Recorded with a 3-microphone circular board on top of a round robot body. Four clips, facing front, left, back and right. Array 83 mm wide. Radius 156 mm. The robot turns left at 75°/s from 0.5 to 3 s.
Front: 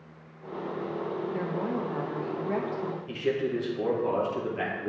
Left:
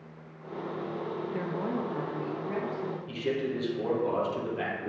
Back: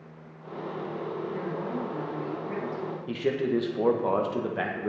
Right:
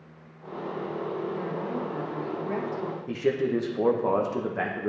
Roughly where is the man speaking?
Behind right.